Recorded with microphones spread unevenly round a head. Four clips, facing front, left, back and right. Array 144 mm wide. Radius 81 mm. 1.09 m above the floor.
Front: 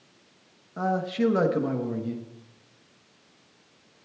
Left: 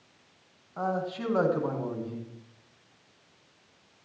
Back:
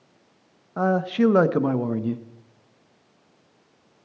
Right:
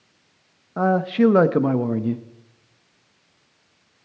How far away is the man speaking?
About 0.9 m.